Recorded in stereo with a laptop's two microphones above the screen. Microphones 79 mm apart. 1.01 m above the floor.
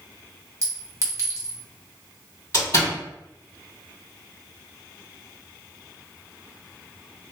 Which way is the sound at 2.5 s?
45° left (ahead or behind).